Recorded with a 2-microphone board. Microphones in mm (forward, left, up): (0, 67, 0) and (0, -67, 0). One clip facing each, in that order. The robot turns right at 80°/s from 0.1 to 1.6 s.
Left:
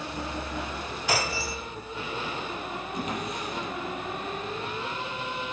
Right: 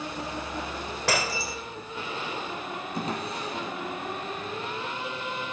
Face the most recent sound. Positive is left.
turn(degrees=-35)  # may be behind; listen again after turning